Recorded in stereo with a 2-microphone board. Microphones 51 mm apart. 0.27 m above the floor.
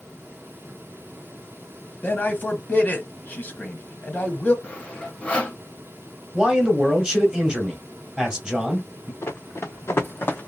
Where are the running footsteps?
75° left (ahead or behind), 1.5 m; by 10.5 s 35° left (ahead or behind), 0.8 m.